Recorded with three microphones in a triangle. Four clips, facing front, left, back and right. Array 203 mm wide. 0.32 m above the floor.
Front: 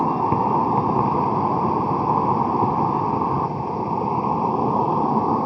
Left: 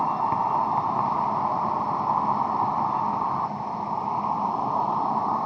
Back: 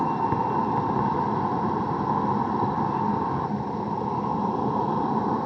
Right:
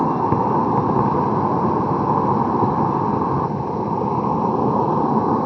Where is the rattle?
No rattle in this recording.